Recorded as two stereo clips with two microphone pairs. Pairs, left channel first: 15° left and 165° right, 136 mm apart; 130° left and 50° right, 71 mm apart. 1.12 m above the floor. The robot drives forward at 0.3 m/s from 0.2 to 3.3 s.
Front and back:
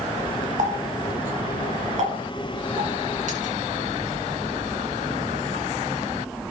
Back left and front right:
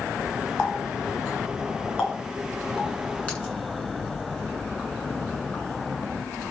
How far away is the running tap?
About 6.5 m.